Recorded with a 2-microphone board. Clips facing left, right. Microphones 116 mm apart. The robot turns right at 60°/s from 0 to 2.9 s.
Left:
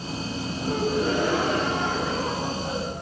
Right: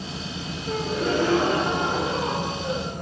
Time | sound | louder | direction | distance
0.7 | a gasp | left 1 dB | 130° left | 9 m